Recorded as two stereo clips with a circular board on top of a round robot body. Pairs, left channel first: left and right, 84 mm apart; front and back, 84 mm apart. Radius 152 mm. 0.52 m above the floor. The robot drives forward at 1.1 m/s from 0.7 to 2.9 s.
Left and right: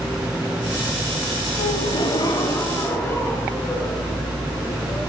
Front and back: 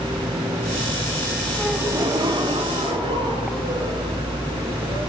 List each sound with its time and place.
1.6 s a gasp: 90° left, 0.7 m; by 5.0 s 155° left, 1.6 m